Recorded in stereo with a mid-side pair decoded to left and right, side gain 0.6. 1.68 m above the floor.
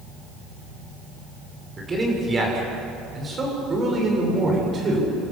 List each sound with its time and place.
1.8 s a man speaking: 25° right, 7 m; by 5.1 s 40° right, 8 m